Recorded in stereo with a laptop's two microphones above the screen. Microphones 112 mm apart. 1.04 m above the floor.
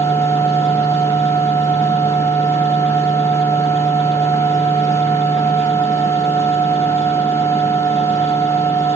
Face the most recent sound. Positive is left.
turn(degrees=25)  # may be behind; listen again after turning